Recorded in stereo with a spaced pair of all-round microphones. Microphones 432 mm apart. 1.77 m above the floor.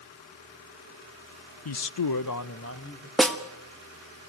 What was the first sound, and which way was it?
A man speaking, 55° left (ahead or behind).